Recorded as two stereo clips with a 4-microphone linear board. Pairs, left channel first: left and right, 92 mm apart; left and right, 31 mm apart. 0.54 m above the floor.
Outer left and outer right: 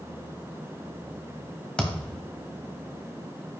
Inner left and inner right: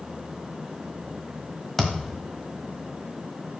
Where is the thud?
10° left (ahead or behind), 1.4 m.